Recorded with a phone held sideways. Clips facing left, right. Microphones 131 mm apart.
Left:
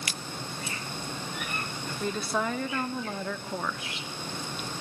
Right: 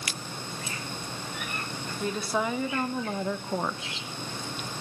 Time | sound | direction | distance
2.0 | a woman speaking | 5° right (ahead or behind) | 2.0 m